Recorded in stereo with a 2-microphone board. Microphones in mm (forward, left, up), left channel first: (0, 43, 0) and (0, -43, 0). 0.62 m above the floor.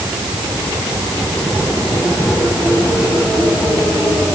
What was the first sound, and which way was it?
Only background noise.